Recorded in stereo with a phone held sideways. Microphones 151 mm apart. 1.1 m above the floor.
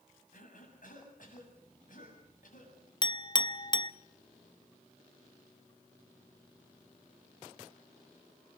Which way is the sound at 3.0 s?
30° left (ahead or behind).